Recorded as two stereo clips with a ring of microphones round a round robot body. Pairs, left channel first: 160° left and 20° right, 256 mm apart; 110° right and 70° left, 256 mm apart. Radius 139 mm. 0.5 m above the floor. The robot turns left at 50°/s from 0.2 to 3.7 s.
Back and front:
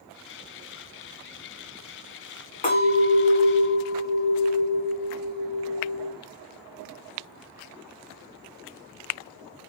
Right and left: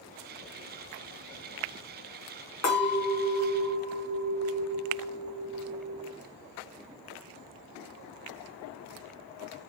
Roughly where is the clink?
Behind right.